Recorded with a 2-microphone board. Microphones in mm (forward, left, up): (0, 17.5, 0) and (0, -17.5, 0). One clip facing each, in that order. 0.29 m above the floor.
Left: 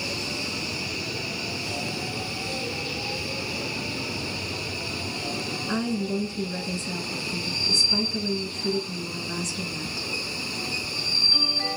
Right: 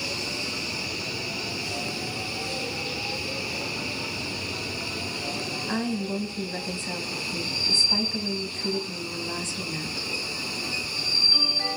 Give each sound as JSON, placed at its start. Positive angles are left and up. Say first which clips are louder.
{"t": 5.7, "sound": "a woman speaking", "louder": "left 2 dB", "side_deg": -45, "distance_m": 2.0}